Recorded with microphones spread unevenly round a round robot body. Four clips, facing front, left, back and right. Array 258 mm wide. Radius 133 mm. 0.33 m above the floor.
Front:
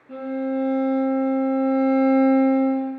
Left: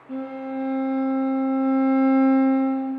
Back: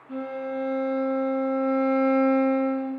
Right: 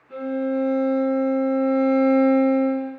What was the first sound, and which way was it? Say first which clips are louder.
A violin: right 5 dB, front 5 dB; 75° left.